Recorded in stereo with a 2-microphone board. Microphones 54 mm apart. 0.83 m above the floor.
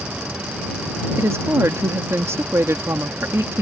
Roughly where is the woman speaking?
Right.